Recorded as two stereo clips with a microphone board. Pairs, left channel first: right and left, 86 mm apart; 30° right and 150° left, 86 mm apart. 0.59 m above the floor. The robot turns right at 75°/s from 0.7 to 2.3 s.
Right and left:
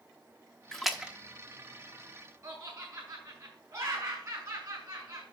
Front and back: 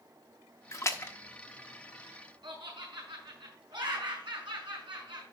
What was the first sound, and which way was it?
A splash, 10° right.